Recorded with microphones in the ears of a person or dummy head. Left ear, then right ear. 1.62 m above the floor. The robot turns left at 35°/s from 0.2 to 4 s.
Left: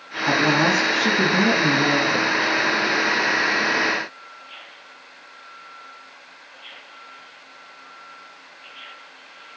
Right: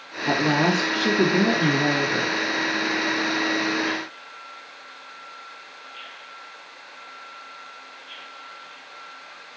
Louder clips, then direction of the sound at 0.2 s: Left 3 dB; 170° right.